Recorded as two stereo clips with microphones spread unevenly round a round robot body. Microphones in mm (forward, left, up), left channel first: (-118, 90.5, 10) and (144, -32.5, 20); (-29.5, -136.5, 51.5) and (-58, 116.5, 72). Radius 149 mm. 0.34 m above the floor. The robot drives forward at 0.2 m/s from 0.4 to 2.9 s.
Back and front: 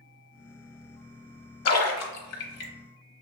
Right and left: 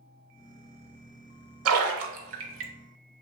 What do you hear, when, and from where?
1.6 s a splash: 125° left, 0.9 m; by 2.7 s 135° left, 1.0 m